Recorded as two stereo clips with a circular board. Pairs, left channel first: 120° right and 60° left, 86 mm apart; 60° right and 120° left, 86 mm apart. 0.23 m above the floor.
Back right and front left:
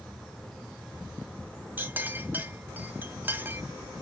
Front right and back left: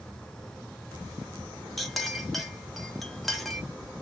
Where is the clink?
25° left, 0.6 m.